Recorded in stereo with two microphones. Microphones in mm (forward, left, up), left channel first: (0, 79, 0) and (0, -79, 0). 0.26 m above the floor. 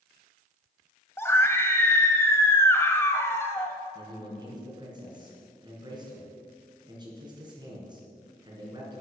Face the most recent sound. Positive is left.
turn(degrees=-30)  # may be behind; listen again after turning